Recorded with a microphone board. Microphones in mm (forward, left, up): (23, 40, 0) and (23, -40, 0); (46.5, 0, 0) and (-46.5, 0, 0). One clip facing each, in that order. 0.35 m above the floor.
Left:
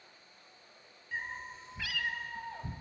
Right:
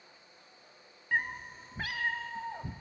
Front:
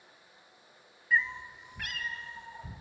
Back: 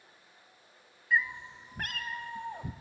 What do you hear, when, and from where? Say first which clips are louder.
1.1 s a cat meowing: right 7 dB, even; 90° right, 1.1 m; by 2.7 s 160° right, 2 m